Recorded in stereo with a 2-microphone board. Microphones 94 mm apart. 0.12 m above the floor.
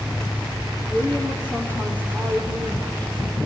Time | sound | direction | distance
0.9 | a woman speaking | 25° left (ahead or behind) | 3.5 m